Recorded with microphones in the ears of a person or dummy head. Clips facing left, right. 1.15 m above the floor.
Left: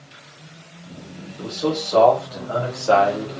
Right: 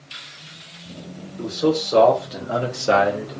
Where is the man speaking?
35° right (ahead or behind), 1.0 m; by 3.4 s centre (ahead or behind), 0.6 m.